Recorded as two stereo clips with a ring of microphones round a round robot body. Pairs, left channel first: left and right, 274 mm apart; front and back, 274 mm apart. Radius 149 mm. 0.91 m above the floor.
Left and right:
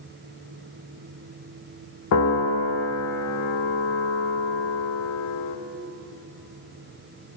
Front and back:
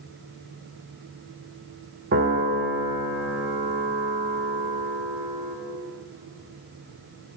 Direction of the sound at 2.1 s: 120° left.